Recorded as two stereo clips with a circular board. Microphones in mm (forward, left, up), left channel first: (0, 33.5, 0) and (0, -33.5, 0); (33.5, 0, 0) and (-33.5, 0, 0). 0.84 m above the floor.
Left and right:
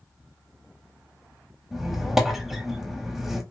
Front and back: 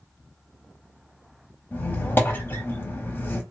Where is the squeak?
10° right, 0.7 m.